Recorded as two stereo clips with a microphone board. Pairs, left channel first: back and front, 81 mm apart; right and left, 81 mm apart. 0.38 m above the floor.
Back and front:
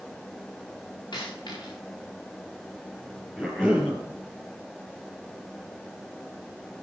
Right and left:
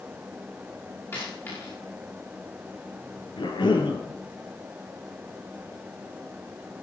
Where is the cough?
95° right, 4.5 m.